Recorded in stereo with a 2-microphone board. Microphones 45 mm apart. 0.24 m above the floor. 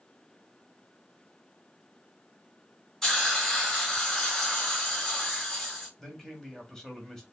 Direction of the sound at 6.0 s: 10° left (ahead or behind).